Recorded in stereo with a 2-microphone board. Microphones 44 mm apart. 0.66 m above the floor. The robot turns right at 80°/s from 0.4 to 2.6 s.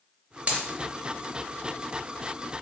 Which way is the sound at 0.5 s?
40° right (ahead or behind).